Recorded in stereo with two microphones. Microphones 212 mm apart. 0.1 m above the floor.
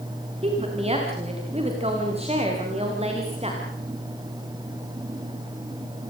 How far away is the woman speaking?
About 8.5 m.